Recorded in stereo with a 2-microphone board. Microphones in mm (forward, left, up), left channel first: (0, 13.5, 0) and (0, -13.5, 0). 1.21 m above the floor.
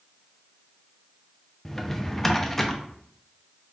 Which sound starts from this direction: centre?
A drawer, at 1.6 s.